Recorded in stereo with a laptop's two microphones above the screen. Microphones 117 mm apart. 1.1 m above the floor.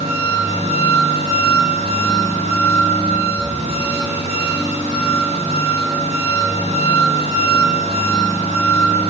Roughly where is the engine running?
Right.